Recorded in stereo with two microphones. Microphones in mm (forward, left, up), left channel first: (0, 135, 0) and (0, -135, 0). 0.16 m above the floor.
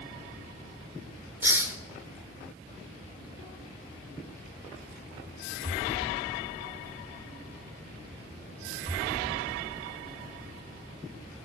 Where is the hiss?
10° right (ahead or behind), 0.7 m.